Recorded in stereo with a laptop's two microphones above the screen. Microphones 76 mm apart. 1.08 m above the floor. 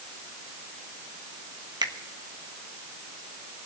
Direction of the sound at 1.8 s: 65° right (ahead or behind).